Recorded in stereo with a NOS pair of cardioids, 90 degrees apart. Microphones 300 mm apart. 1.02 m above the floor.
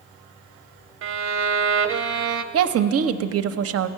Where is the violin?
45° right, 0.6 m.